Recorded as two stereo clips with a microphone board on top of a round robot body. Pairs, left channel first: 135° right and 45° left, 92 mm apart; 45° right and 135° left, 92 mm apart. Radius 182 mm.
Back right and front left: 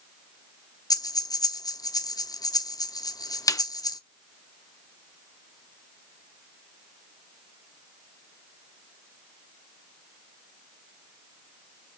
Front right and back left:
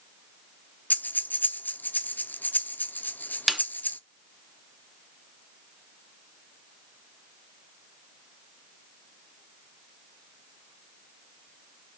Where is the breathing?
110° right, 1.1 m.